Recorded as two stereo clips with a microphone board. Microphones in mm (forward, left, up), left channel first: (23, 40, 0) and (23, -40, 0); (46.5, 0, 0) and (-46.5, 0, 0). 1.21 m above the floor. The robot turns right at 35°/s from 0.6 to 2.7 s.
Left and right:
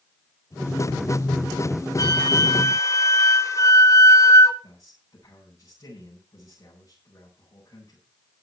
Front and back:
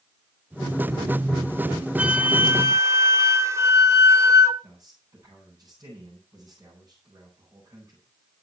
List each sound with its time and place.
2.0 s a flute: 105° left, 1.3 m; by 4.5 s 130° left, 1.3 m
4.6 s a man speaking: 135° left, 9 m